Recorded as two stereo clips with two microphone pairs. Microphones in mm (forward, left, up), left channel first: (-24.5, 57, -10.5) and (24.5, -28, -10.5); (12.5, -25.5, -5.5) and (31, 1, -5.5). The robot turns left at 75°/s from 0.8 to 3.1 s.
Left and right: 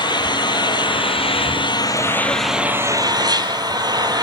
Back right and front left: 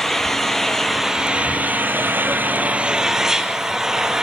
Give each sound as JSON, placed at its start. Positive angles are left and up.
{"t": 0.0, "sound": "an engine running", "azimuth_deg": 155, "distance_m": 1.9}